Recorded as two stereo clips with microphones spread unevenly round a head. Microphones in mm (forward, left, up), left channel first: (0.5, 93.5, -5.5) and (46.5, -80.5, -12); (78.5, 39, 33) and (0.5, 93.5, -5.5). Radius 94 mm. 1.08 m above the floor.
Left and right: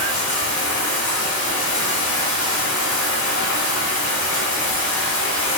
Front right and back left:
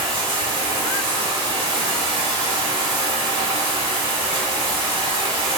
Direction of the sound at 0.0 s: 125° left.